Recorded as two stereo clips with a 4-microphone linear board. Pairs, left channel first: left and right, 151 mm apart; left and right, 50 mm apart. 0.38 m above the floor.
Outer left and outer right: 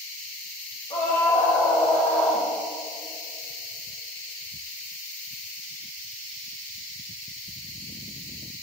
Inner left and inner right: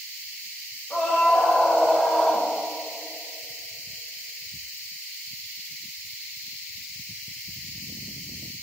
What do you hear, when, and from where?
0.9 s a scream: 40° left (ahead or behind), 1.8 m; by 2.5 s centre (ahead or behind), 1.4 m